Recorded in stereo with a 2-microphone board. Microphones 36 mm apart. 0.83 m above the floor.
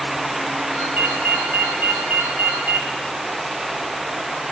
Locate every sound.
0.8 s a ringtone: 65° right (ahead or behind), 4 m